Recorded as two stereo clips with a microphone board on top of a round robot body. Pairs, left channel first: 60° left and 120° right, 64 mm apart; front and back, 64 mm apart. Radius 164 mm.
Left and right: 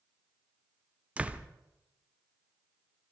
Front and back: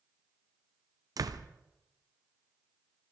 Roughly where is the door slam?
Behind.